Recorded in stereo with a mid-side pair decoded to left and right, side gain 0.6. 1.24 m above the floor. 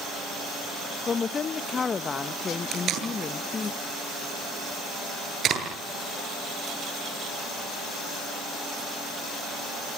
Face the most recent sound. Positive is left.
turn(degrees=-50)